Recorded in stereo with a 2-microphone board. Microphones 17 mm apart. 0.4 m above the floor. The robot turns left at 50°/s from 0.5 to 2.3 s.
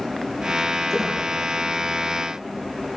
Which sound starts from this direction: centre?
A squeak, at 0.9 s.